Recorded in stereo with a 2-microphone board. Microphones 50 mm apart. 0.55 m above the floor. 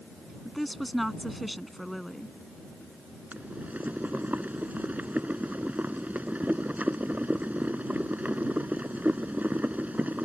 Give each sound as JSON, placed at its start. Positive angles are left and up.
{"t": 0.5, "sound": "a woman speaking", "side_deg": 0}
{"t": 3.3, "sound": "boiling", "side_deg": -30}